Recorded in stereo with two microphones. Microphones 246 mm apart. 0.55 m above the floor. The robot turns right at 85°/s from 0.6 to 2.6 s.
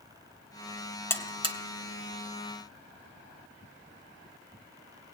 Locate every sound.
1.1 s a buzzer: 10° left (ahead or behind), 0.8 m; by 1.6 s 30° right (ahead or behind), 0.8 m